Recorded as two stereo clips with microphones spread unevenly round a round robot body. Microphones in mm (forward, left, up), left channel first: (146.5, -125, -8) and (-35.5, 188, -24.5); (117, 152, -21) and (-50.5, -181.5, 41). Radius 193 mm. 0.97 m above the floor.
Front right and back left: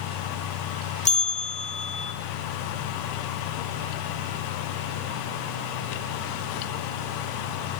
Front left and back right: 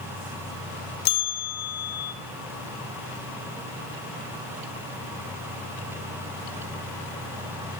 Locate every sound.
1.1 s a bell: 10° left, 1.7 m